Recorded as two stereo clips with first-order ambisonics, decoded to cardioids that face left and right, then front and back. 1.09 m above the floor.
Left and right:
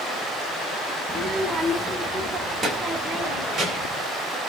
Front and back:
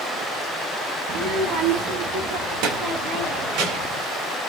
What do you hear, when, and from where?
1.1 s a child speaking: 160° right, 0.6 m; by 4.0 s 170° right, 2 m